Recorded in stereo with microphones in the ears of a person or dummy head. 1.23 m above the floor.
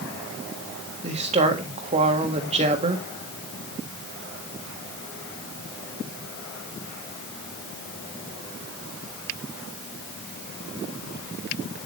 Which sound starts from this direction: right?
A woman speaking, at 1.0 s.